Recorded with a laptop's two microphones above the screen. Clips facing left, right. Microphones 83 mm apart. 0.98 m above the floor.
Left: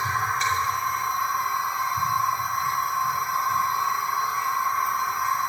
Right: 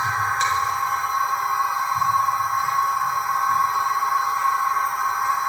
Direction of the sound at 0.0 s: 75° right (ahead or behind).